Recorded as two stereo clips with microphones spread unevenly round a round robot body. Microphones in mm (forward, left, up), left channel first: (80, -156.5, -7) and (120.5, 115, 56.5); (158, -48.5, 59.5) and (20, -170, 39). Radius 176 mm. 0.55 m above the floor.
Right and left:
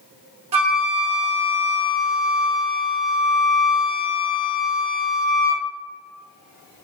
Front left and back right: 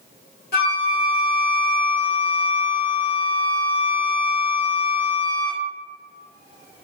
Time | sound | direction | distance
0.5 | a flute | 80° left | 1.3 m